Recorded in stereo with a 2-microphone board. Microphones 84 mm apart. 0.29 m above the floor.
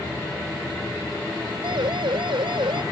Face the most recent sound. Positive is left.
turn(degrees=-70)  # may be behind; listen again after turning